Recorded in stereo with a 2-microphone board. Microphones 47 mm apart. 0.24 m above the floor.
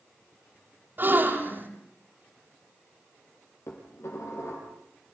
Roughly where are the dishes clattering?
Left.